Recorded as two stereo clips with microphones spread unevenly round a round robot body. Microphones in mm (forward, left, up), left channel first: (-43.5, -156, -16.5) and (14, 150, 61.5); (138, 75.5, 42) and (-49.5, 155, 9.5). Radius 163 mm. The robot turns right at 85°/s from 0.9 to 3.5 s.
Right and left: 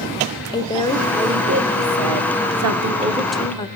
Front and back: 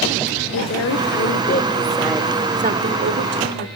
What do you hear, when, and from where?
0.5 s a woman speaking: 30° right, 2 m; by 3.7 s 170° right, 2 m